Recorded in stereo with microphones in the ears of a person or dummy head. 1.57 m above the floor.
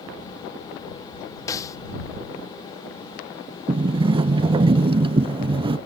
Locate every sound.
1.5 s a snare drum: 20° left (ahead or behind)
3.7 s a sliding door: 25° right (ahead or behind)